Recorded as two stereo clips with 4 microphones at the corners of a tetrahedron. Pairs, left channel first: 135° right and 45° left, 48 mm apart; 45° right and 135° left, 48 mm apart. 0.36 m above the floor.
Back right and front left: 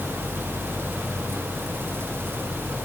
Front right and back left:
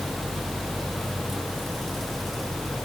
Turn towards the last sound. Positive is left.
No sound to turn to.